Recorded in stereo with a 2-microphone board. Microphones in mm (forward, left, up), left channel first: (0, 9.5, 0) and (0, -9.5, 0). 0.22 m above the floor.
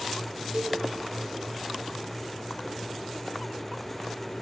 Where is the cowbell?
75° right (ahead or behind), 7 m.